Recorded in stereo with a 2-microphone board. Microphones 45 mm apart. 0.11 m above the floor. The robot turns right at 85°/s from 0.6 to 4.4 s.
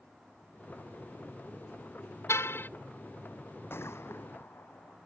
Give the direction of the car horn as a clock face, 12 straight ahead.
9 o'clock.